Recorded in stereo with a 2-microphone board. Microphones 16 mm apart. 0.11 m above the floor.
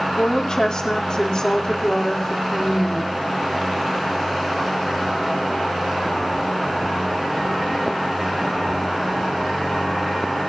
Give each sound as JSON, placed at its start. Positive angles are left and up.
{"t": 0.2, "sound": "a woman speaking", "side_deg": 45, "distance_m": 3.5}